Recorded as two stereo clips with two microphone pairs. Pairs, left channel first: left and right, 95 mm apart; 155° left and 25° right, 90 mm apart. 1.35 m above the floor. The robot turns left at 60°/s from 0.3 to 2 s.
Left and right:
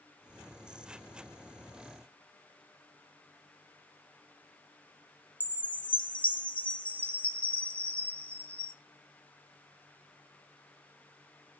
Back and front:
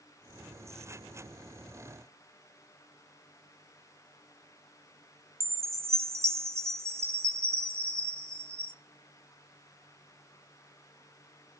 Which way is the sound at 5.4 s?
25° left.